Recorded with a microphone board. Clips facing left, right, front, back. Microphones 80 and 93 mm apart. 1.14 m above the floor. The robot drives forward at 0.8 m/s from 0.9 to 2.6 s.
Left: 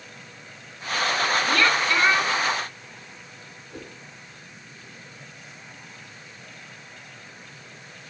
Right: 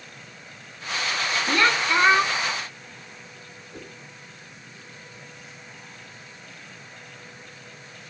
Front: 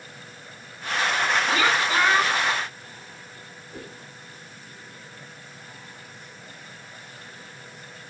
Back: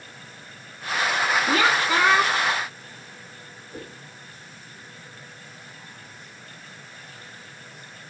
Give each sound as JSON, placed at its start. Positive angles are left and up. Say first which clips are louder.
{"t": 1.5, "sound": "a woman speaking", "louder": "right 3 dB, back 1 dB", "azimuth_deg": -160, "distance_m": 1.9}
{"t": 3.7, "sound": "a whoosh", "louder": "left 2 dB, back 1 dB", "azimuth_deg": 150, "distance_m": 6.0}